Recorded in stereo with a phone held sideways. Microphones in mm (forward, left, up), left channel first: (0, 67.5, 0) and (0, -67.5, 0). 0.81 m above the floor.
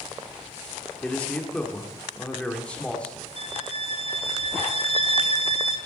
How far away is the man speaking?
About 1.6 m.